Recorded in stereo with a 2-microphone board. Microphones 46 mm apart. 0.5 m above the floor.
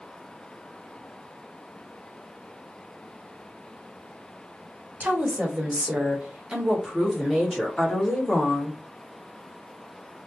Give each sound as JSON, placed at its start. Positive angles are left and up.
{"t": 5.0, "sound": "a woman speaking", "side_deg": -40, "distance_m": 1.5}